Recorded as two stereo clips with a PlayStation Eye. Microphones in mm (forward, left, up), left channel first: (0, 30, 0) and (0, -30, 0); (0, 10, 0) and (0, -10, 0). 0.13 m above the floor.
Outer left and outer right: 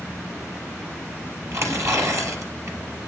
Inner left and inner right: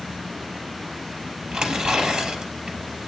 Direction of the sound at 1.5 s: 55° right (ahead or behind).